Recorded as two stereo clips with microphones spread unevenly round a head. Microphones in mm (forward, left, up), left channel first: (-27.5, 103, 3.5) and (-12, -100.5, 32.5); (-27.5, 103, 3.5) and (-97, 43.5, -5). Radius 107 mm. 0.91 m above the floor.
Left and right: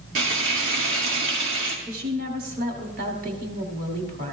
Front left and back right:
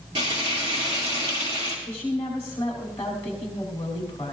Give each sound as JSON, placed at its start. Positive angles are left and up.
{"t": 0.1, "sound": "frying", "azimuth_deg": -110, "distance_m": 2.0}
{"t": 1.9, "sound": "a woman speaking", "azimuth_deg": -35, "distance_m": 2.0}